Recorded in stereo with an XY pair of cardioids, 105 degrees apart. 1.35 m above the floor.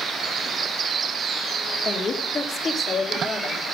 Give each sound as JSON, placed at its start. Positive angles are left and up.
{"t": 1.9, "sound": "a woman speaking", "azimuth_deg": 70, "distance_m": 1.8}